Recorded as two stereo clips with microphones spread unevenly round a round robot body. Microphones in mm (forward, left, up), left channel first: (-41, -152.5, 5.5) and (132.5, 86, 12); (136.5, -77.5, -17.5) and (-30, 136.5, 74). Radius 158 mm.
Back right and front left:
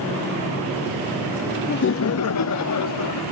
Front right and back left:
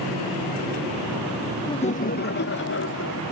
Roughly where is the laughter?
Right.